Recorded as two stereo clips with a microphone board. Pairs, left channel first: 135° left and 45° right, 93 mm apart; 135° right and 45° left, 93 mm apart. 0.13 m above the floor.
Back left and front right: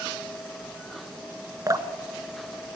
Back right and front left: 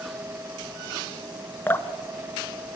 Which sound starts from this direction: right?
Dripping, at 1.7 s.